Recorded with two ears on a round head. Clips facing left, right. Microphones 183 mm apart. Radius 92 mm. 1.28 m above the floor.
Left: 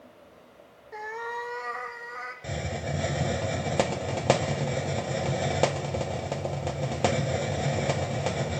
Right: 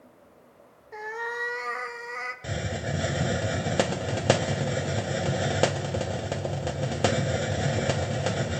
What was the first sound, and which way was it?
A cat meowing, centre (ahead or behind).